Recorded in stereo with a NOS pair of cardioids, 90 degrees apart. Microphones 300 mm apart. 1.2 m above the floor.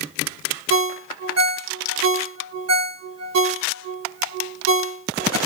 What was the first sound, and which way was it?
A ringtone, 60° right.